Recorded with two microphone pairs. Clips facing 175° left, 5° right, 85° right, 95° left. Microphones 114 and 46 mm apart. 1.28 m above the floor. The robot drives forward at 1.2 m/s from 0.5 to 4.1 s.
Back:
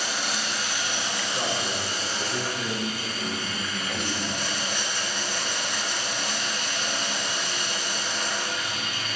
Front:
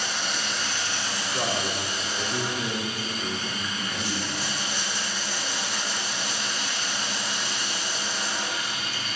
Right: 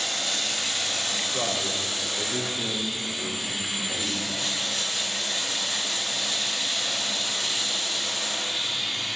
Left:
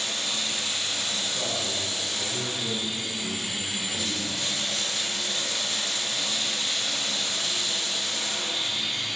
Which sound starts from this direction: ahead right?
A man speaking, at 1.3 s.